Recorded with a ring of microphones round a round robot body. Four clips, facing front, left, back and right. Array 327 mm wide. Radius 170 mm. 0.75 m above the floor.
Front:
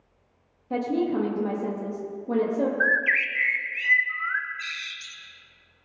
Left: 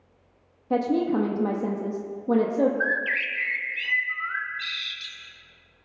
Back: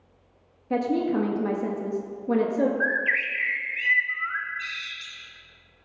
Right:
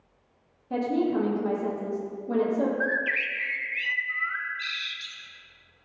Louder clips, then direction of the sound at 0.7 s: Left 2 dB, back 1 dB; 115° left.